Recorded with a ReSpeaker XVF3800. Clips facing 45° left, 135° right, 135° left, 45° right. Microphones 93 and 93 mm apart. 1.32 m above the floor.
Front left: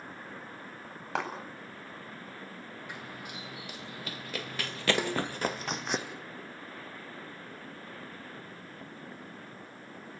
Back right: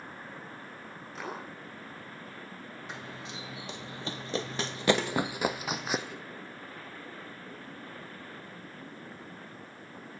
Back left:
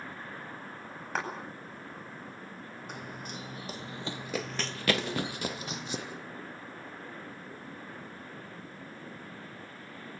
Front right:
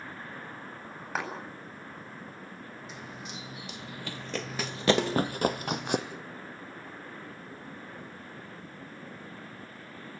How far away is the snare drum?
About 3.5 m.